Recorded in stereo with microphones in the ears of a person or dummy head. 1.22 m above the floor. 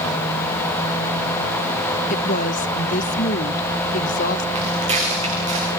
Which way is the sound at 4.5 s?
25° right (ahead or behind).